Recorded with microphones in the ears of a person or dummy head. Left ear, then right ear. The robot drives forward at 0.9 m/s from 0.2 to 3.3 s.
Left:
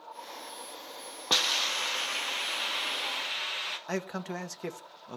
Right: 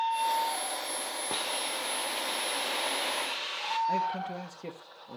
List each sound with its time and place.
1.3 s a hiss: 65° left (ahead or behind), 0.9 m; by 3.8 s 25° left (ahead or behind), 1.9 m
3.9 s a man speaking: 60° left (ahead or behind), 1.3 m